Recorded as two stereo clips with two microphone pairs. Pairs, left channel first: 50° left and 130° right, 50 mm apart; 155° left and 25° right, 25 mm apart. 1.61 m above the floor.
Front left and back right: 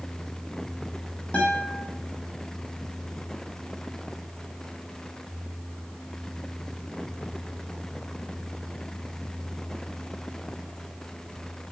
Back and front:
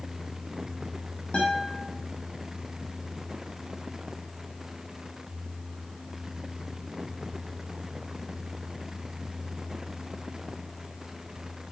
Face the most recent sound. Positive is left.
turn(degrees=115)